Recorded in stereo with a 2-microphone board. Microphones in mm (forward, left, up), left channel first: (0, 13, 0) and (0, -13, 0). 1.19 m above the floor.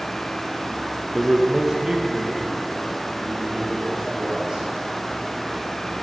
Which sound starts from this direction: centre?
A man speaking, at 1.1 s.